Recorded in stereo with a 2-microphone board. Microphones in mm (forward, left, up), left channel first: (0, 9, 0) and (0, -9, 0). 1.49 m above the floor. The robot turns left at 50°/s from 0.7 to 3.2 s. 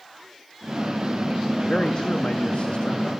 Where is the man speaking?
135° left, 2.5 m; by 3.0 s 65° left, 2.5 m.